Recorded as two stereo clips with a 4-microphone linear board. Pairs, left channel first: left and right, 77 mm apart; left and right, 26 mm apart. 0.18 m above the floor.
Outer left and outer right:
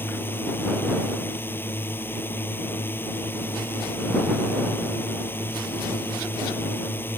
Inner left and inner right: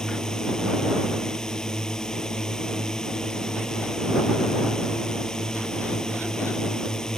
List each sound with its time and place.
0.0 s a drone: 25° left (ahead or behind)